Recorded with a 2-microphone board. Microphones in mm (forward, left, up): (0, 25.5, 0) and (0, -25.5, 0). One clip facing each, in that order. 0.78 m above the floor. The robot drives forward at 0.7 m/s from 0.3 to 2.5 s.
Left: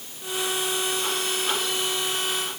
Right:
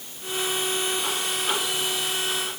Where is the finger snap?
No finger snap in this recording.